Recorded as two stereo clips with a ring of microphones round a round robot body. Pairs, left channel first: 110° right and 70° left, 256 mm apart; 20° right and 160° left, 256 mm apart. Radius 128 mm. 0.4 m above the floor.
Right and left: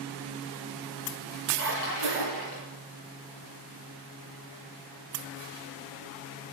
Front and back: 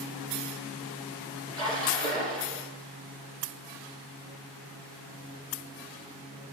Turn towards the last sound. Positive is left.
turn(degrees=-130)